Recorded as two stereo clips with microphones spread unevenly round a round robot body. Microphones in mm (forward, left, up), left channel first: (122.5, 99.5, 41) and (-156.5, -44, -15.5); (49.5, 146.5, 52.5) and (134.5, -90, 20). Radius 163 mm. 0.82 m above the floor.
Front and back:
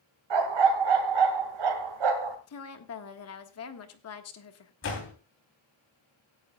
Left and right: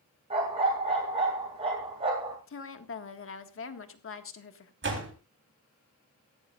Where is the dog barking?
145° right, 2.5 m.